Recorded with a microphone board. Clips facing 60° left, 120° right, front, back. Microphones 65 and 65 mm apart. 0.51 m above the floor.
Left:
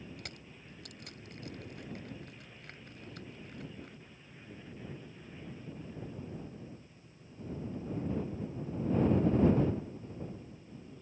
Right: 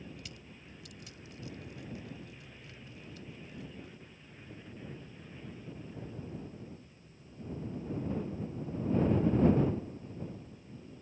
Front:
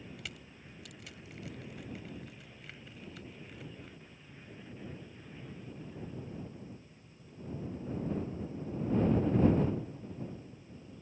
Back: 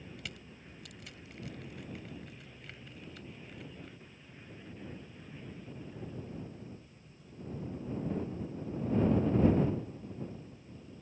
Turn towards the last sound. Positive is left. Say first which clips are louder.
# left 1 dB, even
turn(degrees=90)